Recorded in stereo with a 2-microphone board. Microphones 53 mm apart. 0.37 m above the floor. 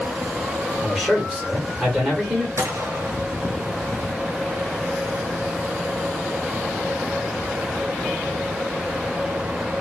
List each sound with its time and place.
0.8 s a man speaking: 10° right (ahead or behind), 1.4 m
2.6 s a gunshot: 70° right (ahead or behind), 0.9 m